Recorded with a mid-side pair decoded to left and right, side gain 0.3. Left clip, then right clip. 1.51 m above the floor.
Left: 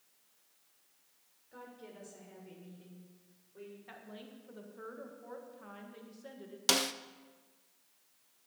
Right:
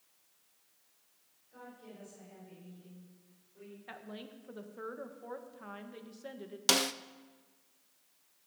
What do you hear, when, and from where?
1.5 s a woman speaking: 70° left, 6.5 m; by 3.8 s 75° left, 7.5 m
3.9 s a woman speaking: 50° right, 1.8 m
6.7 s a snare drum: 15° right, 0.6 m